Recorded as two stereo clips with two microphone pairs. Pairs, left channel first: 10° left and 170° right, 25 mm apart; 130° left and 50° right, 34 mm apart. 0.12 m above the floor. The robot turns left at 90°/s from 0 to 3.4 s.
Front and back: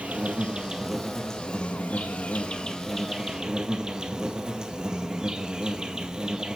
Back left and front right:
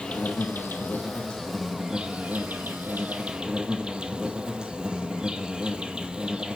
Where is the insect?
170° right, 0.7 m; by 6.6 s 115° right, 0.7 m.